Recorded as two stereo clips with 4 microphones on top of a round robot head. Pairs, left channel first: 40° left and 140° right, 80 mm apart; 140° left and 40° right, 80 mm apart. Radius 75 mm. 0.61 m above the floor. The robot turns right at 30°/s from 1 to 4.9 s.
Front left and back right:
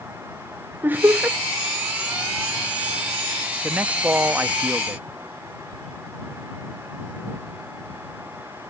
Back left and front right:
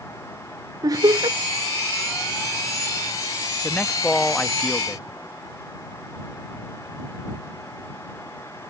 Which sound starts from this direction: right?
Laughter, at 0.8 s.